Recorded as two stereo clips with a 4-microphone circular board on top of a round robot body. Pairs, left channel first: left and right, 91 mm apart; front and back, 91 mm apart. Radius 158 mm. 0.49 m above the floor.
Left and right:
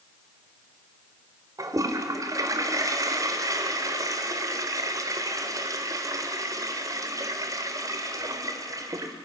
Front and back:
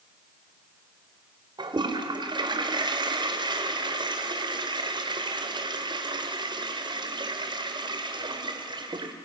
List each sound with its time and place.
1.6 s a toilet flushing: 145° right, 1.5 m